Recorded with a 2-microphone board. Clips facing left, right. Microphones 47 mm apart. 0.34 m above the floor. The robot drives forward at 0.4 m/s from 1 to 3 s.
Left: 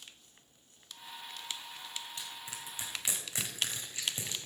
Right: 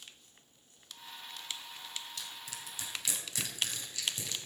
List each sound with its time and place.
2.2 s crushing: 30° left (ahead or behind), 2.0 m; by 4.3 s 35° left (ahead or behind), 1.8 m